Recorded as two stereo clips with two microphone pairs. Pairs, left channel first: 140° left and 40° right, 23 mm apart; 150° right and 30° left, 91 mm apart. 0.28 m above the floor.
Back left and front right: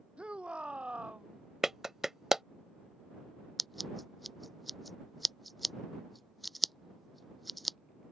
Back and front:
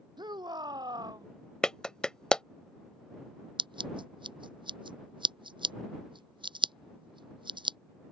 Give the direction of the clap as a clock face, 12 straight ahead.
3 o'clock.